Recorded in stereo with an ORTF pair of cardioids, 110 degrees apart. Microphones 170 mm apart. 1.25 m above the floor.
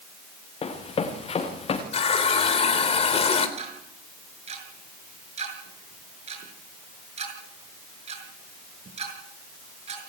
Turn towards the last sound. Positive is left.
turn(degrees=-40)